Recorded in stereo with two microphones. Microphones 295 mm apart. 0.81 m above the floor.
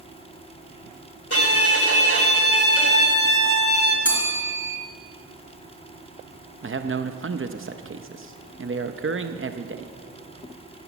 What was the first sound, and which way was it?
A violin, 50° left (ahead or behind).